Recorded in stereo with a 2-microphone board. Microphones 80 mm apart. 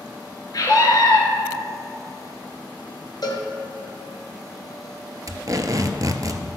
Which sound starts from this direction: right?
Tape being pulled, at 5.3 s.